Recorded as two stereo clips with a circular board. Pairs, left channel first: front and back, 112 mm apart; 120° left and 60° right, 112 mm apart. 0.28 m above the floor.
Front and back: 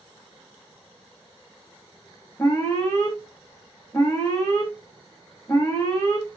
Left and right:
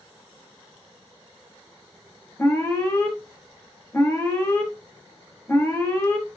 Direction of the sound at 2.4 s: 55° left.